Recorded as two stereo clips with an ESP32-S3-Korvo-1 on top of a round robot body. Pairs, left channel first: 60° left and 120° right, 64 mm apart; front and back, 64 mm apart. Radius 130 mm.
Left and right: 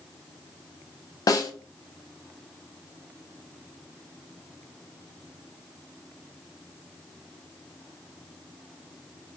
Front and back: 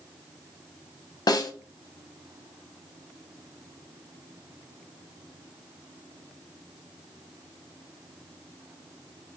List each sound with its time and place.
1.3 s a snare drum: 25° left, 0.8 m